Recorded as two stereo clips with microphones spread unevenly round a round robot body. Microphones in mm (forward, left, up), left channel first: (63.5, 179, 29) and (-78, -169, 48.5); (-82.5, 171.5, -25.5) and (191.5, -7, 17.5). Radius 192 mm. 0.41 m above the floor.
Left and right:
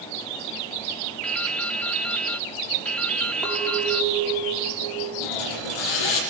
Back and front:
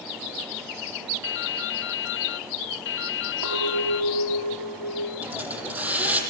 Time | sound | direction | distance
1.2 | dripping | 150° left | 0.7 m
3.4 | a clink | 25° right | 8.5 m
5.2 | a hiss | 50° left | 6 m